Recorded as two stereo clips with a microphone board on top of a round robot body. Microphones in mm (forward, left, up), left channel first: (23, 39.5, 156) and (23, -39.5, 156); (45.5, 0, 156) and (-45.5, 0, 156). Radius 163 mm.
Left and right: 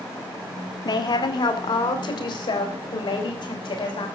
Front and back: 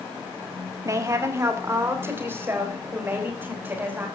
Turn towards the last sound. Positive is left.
turn(degrees=110)